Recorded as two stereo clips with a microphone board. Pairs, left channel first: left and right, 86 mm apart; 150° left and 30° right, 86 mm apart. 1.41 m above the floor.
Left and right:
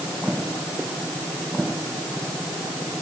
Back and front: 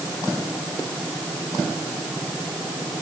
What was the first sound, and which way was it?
Only background noise.